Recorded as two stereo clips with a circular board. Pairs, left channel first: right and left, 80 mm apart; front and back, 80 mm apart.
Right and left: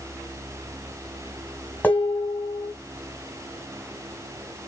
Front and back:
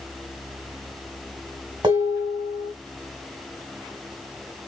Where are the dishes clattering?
160° right, 1.7 m.